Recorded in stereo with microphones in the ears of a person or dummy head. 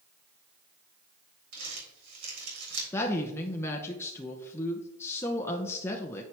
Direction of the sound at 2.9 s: 10° left (ahead or behind).